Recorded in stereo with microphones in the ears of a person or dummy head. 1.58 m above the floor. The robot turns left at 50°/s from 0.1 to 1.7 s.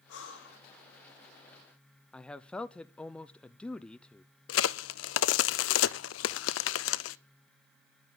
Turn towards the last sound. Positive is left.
turn(degrees=75)  # may be behind; listen again after turning